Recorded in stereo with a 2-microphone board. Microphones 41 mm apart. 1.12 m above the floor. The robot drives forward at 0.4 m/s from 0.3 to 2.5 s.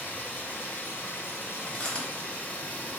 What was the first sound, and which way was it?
Running water, 55° left (ahead or behind).